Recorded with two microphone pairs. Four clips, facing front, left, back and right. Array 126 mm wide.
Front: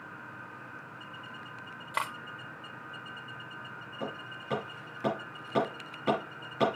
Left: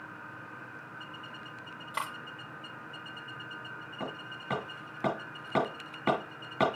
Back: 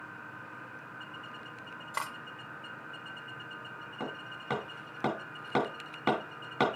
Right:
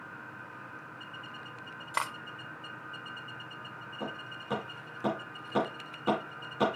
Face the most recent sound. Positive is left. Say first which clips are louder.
# even, front 1 dB
turn(degrees=170)